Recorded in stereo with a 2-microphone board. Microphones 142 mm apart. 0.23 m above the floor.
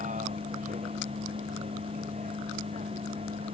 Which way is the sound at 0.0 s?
65° right (ahead or behind).